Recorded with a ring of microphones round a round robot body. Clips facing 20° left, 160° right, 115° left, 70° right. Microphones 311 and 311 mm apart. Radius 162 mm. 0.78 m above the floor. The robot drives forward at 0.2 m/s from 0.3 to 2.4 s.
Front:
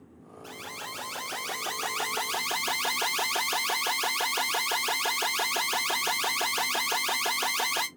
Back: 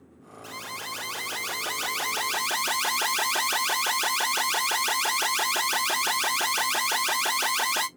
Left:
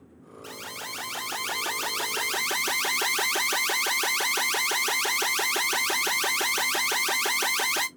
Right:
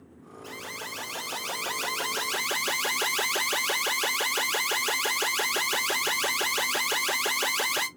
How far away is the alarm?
About 1.4 m.